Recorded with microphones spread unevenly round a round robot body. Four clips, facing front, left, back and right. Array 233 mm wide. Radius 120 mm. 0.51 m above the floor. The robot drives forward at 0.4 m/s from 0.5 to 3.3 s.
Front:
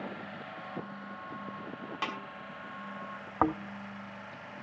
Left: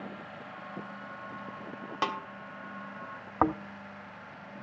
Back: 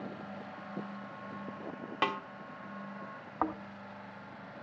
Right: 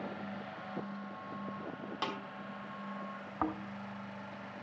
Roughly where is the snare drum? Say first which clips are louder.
Left 7 dB, back 5 dB; behind left.